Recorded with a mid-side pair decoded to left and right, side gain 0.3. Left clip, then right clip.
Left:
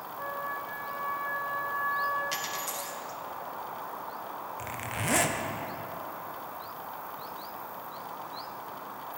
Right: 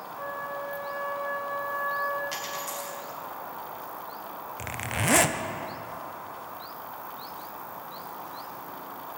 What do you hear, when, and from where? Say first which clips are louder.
0.2 s a flute: right 1 dB; 35° right, 2.5 m
2.3 s a dropped coin: even; 35° left, 3 m
4.6 s a zipper: right 6 dB; 55° right, 0.6 m